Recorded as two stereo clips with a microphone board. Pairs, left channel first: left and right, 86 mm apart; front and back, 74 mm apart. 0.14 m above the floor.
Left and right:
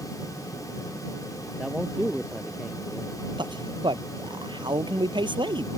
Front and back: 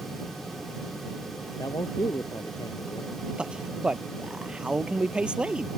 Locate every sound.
1.6 s a man speaking: 10° right
3.4 s a man speaking: 105° right